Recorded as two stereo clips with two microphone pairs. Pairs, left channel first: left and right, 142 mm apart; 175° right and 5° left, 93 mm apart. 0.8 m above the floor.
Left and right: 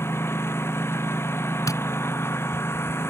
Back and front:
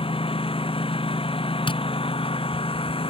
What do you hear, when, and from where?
0.0 s a lawn mower: 165° left
1.7 s tapping: 160° left